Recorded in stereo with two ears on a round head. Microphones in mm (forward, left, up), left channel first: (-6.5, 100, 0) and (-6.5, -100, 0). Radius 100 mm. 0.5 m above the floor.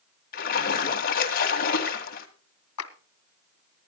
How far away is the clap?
About 1.7 m.